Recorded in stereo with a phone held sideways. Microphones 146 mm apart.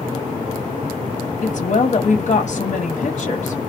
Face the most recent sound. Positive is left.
turn(degrees=50)  # may be behind; listen again after turning